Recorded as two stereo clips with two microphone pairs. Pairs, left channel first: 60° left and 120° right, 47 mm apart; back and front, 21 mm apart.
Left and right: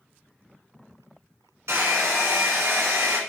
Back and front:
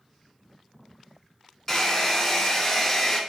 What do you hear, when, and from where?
1.7 s a hair dryer: 120° right, 0.9 m